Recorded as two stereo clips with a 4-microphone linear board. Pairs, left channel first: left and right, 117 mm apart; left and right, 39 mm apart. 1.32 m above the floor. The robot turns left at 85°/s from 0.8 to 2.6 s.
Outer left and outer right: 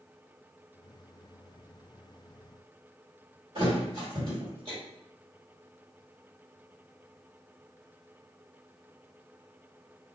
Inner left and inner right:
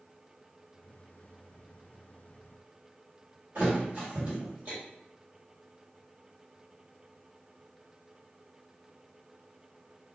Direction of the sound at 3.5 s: 45° right (ahead or behind).